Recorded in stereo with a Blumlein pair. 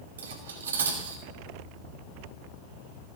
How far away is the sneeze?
I don't hear a sneeze.